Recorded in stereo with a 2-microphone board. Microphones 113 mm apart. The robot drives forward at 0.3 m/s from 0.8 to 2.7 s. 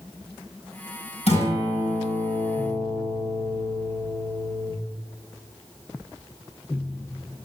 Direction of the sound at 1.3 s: 75° left (ahead or behind).